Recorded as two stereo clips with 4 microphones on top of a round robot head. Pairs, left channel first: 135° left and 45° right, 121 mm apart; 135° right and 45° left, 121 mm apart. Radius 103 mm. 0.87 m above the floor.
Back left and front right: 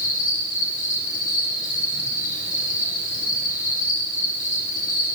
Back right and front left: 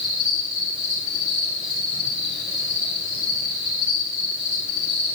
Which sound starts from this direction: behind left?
An insect, at 0.0 s.